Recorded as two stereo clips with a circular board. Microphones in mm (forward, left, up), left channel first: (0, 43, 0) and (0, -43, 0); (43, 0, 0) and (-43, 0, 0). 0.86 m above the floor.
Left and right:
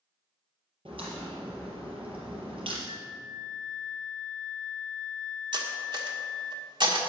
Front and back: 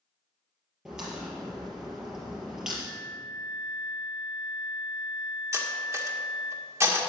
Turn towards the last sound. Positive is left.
turn(degrees=-120)